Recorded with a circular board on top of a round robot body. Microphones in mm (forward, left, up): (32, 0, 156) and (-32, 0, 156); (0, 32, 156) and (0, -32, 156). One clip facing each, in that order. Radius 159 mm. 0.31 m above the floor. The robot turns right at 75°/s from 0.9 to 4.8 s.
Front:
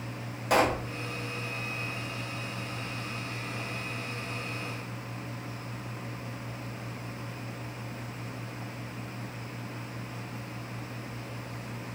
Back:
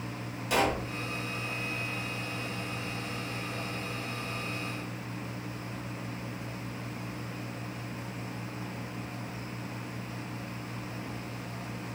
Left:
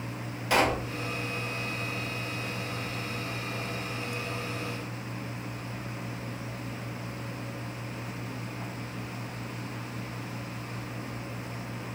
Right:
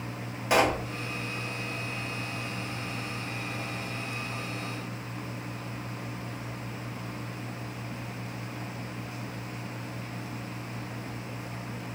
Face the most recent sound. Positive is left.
turn(degrees=-90)